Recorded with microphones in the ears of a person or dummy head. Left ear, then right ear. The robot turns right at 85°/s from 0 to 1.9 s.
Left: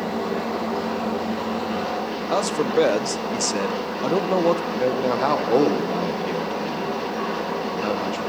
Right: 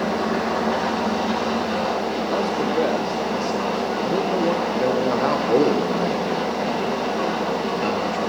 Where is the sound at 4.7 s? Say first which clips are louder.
Right 1 dB; 30° left (ahead or behind), 1.3 m.